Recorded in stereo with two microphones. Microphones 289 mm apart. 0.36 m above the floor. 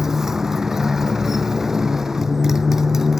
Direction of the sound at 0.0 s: Centre (ahead or behind).